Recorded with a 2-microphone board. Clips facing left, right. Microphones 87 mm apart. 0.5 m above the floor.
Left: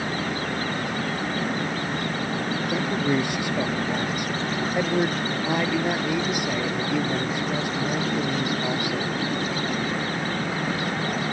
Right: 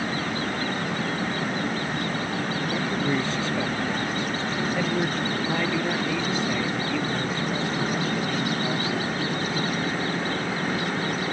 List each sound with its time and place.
2.7 s a man speaking: 15° left (ahead or behind)